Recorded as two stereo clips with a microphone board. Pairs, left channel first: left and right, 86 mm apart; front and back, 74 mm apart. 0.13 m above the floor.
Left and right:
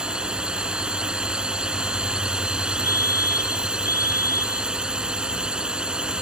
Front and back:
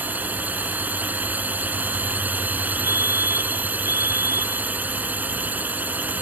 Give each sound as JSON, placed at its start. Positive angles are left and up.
{"t": 0.0, "sound": "a drone", "azimuth_deg": -155}
{"t": 2.8, "sound": "a fire alarm", "azimuth_deg": 40}